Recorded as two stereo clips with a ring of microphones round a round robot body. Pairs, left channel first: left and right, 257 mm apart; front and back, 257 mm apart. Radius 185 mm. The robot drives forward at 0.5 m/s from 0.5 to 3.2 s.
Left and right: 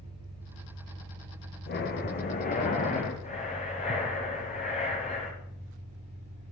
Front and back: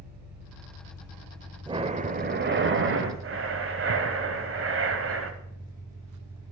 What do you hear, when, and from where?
0.0 s an engine running: 150° right, 4 m; by 6.5 s 160° right, 5 m
1.7 s breathing: 115° left, 0.8 m; by 5.3 s 155° left, 1.3 m